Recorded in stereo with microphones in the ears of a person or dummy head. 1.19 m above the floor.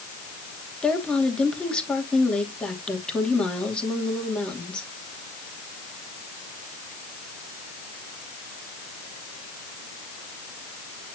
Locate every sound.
0.8 s a woman speaking: 5° left (ahead or behind), 2.5 m